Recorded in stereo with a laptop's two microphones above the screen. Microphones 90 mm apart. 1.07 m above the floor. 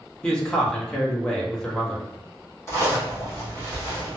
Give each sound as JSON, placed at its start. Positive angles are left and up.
{"t": 0.2, "sound": "a man speaking", "side_deg": 10, "distance_m": 1.2}
{"t": 2.7, "sound": "a zipper", "side_deg": 30, "distance_m": 1.5}